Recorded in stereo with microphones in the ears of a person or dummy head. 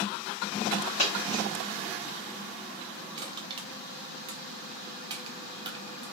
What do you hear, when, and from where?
1.0 s a dropped coin: 35° left (ahead or behind), 1.2 m
3.2 s crushing: 30° right (ahead or behind), 0.8 m